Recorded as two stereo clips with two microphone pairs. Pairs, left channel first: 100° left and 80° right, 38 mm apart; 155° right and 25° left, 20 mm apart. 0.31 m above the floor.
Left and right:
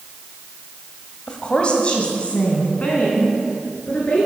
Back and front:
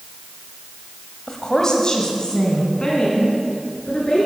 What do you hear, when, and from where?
1.3 s a woman speaking: 155° left, 1.6 m